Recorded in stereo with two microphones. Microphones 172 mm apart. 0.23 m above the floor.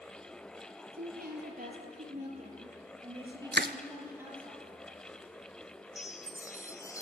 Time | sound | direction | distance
0.9 | a woman speaking | 60° right (ahead or behind) | 6.5 m
3.5 | crushing | 80° right | 0.9 m
6.0 | a chime | 20° left (ahead or behind) | 0.9 m